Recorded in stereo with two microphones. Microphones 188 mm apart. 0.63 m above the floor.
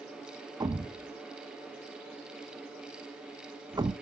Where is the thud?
20° right (ahead or behind), 0.6 m.